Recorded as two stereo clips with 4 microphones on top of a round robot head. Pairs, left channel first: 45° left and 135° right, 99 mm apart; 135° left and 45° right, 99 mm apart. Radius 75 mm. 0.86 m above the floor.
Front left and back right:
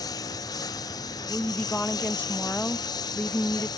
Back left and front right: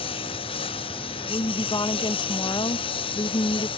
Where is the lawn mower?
100° left.